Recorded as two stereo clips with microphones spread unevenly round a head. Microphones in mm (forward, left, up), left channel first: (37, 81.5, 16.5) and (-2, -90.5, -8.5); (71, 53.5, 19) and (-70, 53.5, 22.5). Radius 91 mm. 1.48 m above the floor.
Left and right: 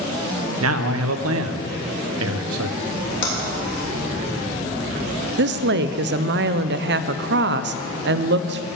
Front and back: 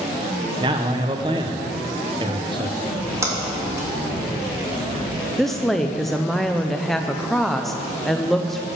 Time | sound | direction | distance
0.6 | a man speaking | 115° right | 0.8 m
2.8 | a splash | 110° left | 3 m
5.4 | a woman speaking | 90° right | 0.6 m